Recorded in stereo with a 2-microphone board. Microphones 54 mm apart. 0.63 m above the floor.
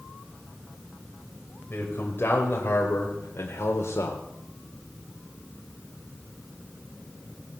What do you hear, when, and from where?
1.7 s a man speaking: 40° left (ahead or behind), 3 m; by 4.2 s 65° left (ahead or behind), 2 m